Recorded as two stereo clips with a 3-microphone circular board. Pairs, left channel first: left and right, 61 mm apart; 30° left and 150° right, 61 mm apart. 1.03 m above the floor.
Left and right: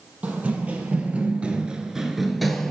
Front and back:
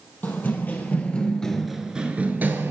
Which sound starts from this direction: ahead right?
Running footsteps, at 0.2 s.